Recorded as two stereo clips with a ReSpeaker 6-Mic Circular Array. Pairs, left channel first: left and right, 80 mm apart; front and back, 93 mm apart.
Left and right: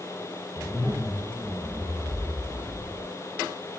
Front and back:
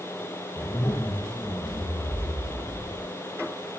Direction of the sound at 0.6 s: 25° right.